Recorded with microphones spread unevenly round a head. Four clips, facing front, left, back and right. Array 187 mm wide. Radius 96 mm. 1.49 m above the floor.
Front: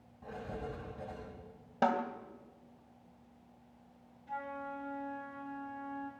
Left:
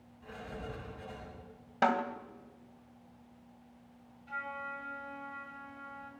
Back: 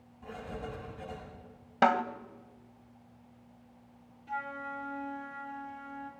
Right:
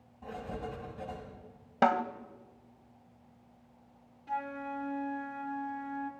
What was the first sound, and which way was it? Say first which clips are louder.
Writing: right 4 dB, back 1 dB; 60° right.